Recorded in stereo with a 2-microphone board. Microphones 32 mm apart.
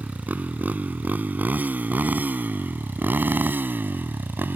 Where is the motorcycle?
55° right (ahead or behind); by 4.5 s 80° right.